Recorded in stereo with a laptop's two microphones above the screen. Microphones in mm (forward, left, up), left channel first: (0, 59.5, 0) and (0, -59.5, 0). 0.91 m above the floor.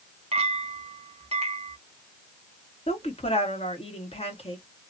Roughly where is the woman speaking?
Left.